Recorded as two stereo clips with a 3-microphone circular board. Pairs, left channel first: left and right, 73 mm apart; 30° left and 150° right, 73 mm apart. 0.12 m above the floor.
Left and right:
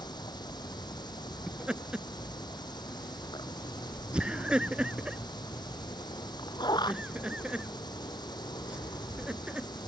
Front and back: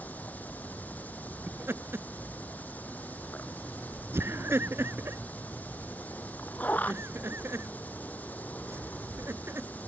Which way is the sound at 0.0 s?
95° left.